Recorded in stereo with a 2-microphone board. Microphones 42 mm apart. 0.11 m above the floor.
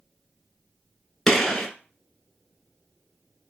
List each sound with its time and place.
1.3 s a gunshot: 10° left (ahead or behind), 0.9 m